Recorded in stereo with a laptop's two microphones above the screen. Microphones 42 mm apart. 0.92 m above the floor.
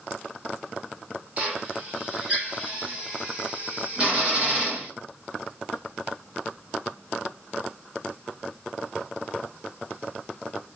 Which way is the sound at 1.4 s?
30° right (ahead or behind).